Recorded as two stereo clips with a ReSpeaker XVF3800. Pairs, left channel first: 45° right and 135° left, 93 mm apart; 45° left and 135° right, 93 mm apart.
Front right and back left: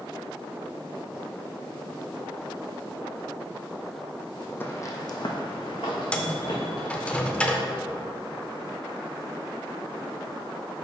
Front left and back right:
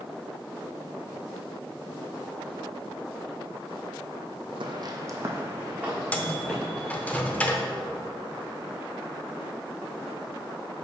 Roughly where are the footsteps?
Right.